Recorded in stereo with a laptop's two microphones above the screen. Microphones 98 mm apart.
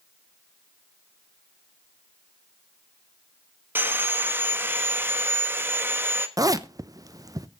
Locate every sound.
3.8 s sawing: 20° right (ahead or behind), 1.3 m
6.4 s a zipper: 40° right (ahead or behind), 0.8 m